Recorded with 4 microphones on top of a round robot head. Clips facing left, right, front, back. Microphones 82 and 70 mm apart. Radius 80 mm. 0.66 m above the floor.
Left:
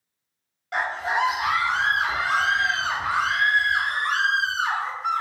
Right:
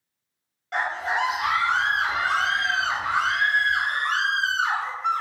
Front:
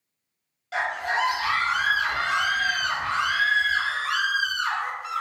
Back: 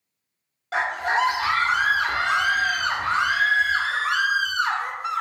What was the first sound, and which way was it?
A scream, 175° left.